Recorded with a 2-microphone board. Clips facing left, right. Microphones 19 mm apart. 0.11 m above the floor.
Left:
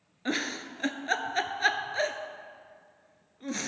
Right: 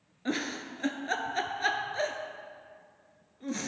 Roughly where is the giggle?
Left.